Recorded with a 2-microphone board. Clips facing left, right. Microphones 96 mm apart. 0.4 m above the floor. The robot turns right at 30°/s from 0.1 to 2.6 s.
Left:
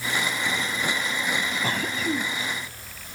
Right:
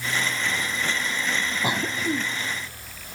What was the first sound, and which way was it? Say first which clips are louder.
A cough: right 3 dB; 15° right (ahead or behind).